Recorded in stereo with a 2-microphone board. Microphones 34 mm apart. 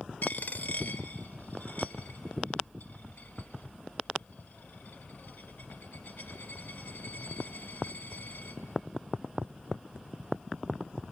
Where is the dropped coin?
65° left (ahead or behind), 1.4 m.